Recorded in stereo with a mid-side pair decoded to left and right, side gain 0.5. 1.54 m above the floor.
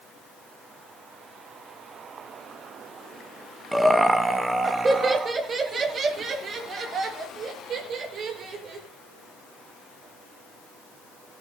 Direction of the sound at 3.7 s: 10° right.